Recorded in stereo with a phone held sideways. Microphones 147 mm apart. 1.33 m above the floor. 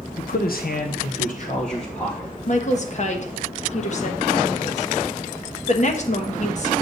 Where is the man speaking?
65° left (ahead or behind), 0.8 m; by 2.3 s 35° left (ahead or behind), 1.4 m.